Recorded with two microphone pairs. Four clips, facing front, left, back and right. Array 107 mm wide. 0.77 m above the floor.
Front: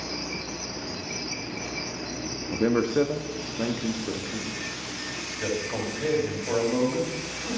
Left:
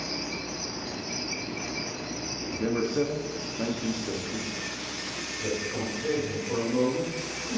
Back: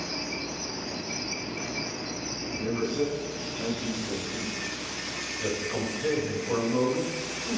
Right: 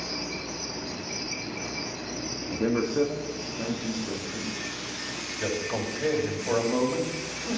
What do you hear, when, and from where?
2.5 s a man speaking: 15° right, 1.0 m; by 4.5 s 40° left, 1.6 m
5.4 s a man speaking: 70° right, 3.5 m